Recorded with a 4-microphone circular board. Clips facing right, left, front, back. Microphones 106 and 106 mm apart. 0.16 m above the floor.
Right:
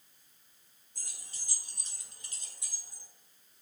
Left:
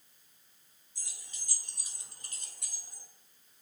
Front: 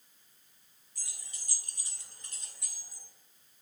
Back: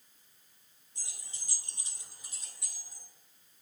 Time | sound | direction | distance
0.9 | keys jangling | 115° right | 1.5 m